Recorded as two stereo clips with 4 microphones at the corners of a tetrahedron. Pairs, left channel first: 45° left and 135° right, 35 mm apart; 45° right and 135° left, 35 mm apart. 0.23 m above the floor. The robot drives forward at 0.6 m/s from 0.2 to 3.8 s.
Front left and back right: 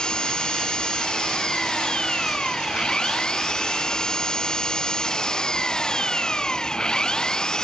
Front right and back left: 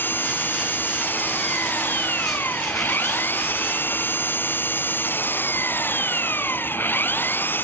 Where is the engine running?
25° right.